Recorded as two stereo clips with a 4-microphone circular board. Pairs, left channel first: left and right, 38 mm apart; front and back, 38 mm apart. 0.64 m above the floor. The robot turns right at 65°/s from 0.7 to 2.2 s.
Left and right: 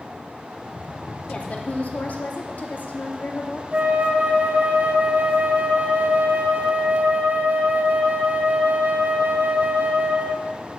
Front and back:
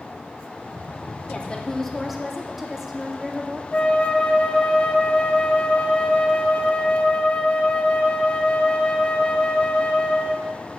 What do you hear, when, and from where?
1.3 s a woman speaking: 40° left, 0.8 m; by 3.6 s 100° left, 0.8 m
3.7 s a flute: 55° right, 0.6 m